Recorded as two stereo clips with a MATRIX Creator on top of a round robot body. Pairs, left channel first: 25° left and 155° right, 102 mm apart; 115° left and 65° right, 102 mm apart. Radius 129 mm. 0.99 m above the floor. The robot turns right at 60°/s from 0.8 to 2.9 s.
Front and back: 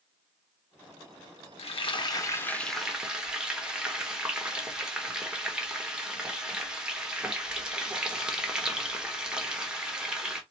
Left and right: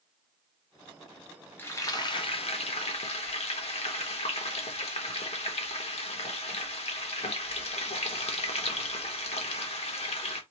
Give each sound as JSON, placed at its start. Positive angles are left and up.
{"t": 1.6, "sound": "frying", "azimuth_deg": 40, "distance_m": 1.4}